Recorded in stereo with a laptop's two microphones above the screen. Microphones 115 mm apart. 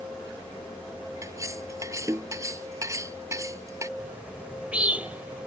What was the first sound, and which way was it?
Cutlery clinking, 25° right (ahead or behind).